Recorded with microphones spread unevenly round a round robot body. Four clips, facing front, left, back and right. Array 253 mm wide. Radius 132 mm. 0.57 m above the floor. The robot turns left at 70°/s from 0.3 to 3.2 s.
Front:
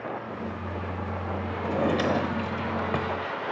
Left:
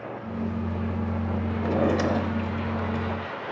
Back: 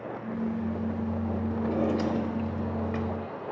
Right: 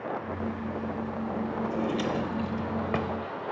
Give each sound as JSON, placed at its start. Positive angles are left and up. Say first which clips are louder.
{"t": 1.6, "sound": "a drawer", "louder": "left 8 dB, front 3 dB", "azimuth_deg": 55, "distance_m": 0.7}